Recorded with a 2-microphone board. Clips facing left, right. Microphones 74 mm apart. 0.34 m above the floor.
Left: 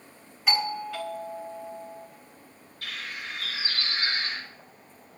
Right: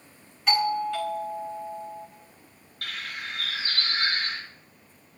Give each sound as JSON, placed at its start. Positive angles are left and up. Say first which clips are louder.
{"t": 0.5, "sound": "a doorbell", "louder": "right 4 dB", "side_deg": 0, "distance_m": 3.0}
{"t": 2.8, "sound": "a bird", "louder": "right 1 dB", "side_deg": -65, "distance_m": 5.5}